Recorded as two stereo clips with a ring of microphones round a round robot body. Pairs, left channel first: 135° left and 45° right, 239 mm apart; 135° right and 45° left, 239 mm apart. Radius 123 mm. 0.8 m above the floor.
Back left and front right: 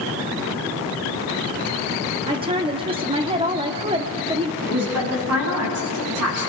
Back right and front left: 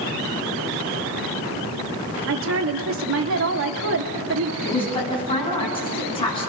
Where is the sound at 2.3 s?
20° left, 1.8 m.